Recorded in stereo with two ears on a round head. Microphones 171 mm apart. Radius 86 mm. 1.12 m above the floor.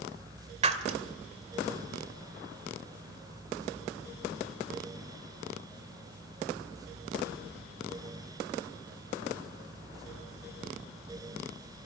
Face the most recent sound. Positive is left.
turn(degrees=-35)  # may be behind; listen again after turning